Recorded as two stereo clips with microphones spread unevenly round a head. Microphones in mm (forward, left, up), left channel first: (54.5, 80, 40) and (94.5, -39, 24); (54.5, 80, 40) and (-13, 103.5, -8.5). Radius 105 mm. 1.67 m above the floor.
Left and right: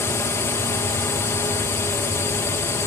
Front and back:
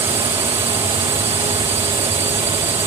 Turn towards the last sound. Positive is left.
turn(degrees=-175)